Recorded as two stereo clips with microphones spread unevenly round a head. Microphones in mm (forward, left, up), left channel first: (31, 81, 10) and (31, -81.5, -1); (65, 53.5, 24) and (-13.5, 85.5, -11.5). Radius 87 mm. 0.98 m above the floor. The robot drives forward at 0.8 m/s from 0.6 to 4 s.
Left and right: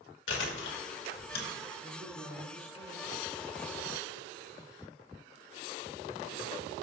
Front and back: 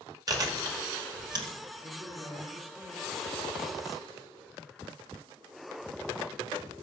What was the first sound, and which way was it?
Chewing, 115° left.